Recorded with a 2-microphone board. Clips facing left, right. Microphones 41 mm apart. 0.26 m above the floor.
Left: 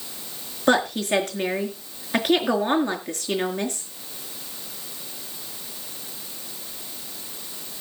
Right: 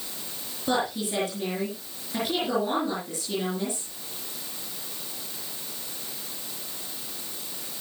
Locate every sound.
0.7 s a woman speaking: 60° left (ahead or behind), 4.5 m